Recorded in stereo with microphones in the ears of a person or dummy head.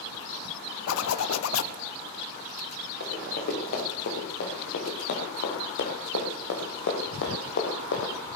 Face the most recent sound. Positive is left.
turn(degrees=65)  # may be behind; listen again after turning